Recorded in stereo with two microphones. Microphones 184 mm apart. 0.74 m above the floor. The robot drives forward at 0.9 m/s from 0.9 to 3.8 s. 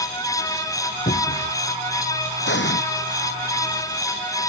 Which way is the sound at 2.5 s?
80° left.